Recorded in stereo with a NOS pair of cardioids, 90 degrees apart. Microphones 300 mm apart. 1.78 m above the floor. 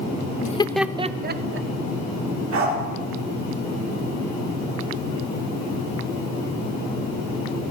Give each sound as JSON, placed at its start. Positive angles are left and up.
{"t": 0.4, "sound": "laughter", "azimuth_deg": 30, "distance_m": 0.6}
{"t": 2.5, "sound": "a dog barking", "azimuth_deg": -65, "distance_m": 7.5}